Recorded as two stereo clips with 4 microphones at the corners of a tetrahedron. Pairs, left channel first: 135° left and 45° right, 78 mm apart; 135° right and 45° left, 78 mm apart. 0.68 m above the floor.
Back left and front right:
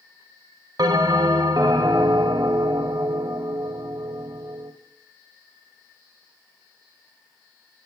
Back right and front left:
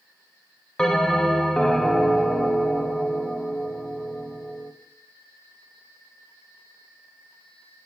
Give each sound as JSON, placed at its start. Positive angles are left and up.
{"t": 0.8, "sound": "a bell", "azimuth_deg": -55, "distance_m": 0.6}